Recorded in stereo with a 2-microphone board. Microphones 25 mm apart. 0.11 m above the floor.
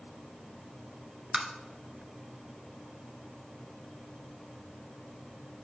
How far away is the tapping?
About 0.7 m.